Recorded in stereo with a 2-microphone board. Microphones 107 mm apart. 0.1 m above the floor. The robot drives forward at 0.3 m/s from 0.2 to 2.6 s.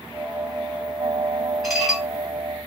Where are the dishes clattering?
Centre (ahead or behind), 1.6 m.